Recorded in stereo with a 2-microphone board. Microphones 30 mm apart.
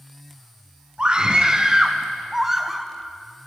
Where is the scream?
30° right (ahead or behind), 3.5 m; by 2.9 s centre (ahead or behind), 1.8 m.